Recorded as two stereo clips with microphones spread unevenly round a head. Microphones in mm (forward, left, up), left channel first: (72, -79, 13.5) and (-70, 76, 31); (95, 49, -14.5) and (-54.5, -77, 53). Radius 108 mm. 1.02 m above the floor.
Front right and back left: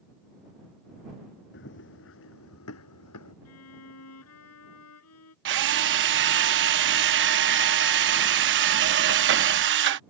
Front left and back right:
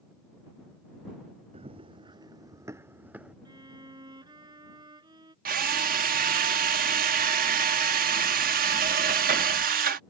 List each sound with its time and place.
1.5 s running footsteps: 90° right; by 3.4 s 65° right
3.5 s a violin: 70° right
5.5 s a drill: 170° left